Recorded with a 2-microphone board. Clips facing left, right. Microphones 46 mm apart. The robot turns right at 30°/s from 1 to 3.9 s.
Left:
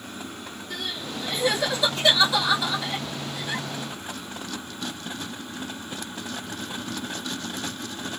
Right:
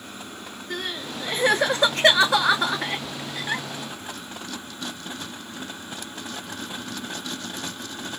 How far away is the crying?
About 0.9 m.